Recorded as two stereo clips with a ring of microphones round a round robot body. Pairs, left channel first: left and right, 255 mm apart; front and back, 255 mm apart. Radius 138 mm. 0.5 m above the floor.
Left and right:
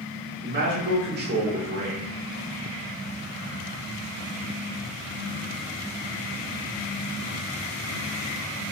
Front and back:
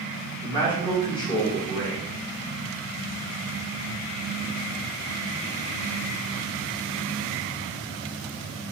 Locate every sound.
0.4 s a man speaking: 65° right, 1.3 m